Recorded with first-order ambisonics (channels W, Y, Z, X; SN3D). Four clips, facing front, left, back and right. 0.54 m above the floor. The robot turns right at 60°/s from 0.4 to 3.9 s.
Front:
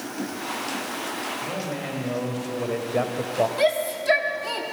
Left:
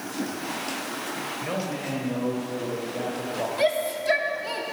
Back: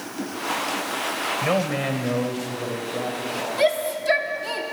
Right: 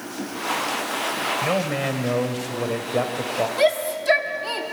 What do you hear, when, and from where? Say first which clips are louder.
1.4 s a man speaking: right 5 dB, back 7 dB; 150° right, 2.0 m; by 3.5 s 25° right, 2.0 m
3.6 s a shout: right 3 dB, back 1 dB; 105° right, 1.1 m; by 4.6 s 90° right, 1.1 m